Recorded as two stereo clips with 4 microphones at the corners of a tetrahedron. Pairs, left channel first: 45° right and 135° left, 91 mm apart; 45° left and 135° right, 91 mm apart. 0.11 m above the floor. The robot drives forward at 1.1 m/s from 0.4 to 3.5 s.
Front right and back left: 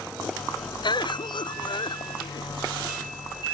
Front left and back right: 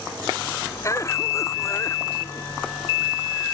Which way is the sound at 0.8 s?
10° right.